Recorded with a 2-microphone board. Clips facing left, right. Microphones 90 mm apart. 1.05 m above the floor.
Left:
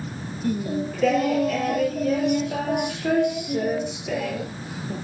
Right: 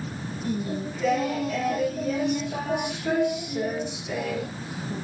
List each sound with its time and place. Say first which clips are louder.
0.4 s singing: left 4 dB; 65° left (ahead or behind), 3.5 m